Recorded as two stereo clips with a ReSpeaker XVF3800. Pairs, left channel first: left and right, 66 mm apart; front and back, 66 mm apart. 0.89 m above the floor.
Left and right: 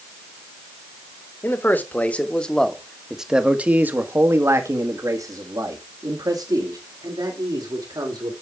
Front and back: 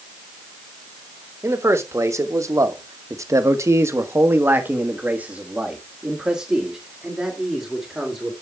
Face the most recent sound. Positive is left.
turn(degrees=-95)